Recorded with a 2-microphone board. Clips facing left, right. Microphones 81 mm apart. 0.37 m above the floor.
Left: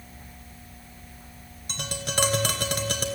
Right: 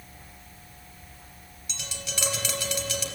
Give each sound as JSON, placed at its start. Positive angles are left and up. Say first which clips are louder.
{"t": 1.7, "sound": "tapping", "louder": "left 7 dB", "side_deg": 50, "distance_m": 2.5}